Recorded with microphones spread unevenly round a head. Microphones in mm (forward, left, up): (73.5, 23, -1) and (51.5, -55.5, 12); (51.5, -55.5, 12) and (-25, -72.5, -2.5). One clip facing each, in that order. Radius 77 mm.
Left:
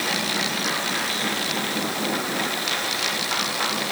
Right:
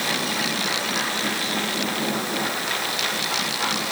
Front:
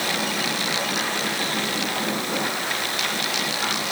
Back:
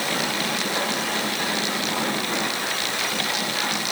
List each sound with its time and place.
Only background noise.